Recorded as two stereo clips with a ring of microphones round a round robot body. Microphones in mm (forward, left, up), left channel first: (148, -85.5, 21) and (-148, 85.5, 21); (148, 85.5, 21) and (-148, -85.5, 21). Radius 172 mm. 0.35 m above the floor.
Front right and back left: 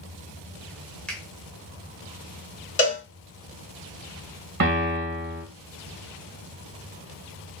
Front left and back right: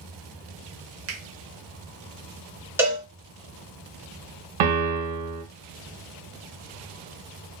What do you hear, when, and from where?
1.1 s a finger snap: 115° right, 0.8 m
2.8 s a cowbell: 75° right, 1.5 m
4.6 s a piano: 150° right, 1.0 m